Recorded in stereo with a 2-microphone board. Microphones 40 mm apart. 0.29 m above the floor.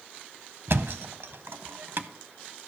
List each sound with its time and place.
0.7 s a thud: 65° right (ahead or behind), 0.6 m